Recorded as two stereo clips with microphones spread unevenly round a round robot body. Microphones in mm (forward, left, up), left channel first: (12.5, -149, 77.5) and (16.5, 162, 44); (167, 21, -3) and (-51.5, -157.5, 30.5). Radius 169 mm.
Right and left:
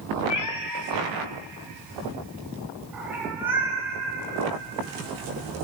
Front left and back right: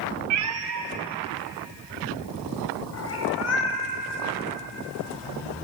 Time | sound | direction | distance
0.3 | a cat meowing | 125° right | 0.9 m